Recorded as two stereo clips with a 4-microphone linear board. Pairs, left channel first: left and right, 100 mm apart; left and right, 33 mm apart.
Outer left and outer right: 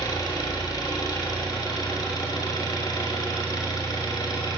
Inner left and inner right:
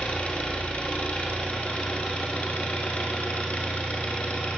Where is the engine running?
40° left (ahead or behind), 5.5 m.